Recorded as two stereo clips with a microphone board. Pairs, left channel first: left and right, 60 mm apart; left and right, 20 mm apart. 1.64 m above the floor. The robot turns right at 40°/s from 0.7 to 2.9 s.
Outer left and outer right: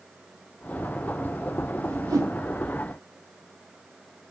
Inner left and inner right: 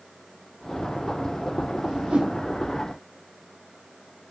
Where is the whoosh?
65° right (ahead or behind), 0.7 m; by 2.4 s 75° right (ahead or behind), 0.7 m.